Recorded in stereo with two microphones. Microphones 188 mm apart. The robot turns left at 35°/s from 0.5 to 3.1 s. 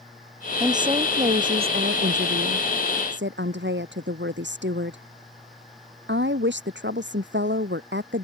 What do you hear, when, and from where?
0.6 s a woman speaking: 15° right; by 8.2 s 105° right